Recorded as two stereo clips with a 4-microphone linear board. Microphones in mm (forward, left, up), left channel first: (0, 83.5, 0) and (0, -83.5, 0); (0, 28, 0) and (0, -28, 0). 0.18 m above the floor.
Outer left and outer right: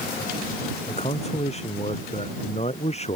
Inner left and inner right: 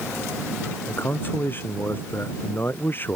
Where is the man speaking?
40° left (ahead or behind).